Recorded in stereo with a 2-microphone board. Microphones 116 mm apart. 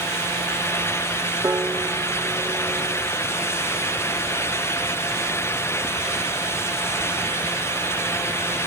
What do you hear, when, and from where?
1.4 s a piano: 20° right (ahead or behind)